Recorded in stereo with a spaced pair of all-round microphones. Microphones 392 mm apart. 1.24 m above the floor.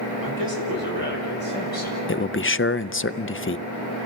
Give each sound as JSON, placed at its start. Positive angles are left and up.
{"t": 0.2, "sound": "a man speaking", "side_deg": -60, "distance_m": 7.5}
{"t": 2.1, "sound": "a man speaking", "side_deg": 30, "distance_m": 0.6}